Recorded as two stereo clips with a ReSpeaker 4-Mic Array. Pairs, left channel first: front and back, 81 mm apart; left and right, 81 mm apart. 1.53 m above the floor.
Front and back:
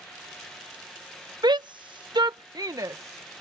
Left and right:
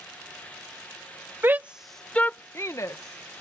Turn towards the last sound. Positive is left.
turn(degrees=125)